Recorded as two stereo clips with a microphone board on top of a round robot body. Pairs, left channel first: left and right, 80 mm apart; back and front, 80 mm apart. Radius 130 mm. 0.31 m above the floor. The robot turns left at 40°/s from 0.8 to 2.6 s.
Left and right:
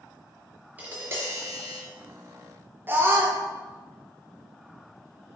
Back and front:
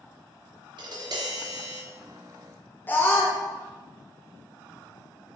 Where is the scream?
135° right, 1.0 m.